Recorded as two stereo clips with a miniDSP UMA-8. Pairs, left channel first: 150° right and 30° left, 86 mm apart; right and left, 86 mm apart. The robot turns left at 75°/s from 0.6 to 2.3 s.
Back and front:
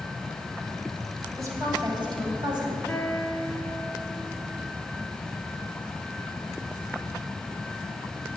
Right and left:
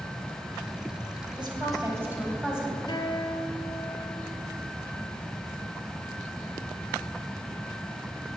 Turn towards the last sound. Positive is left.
turn(degrees=-70)